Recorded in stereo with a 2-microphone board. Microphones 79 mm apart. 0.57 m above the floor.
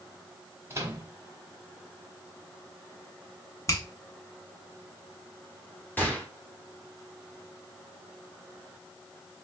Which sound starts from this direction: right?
A microwave, at 0.7 s.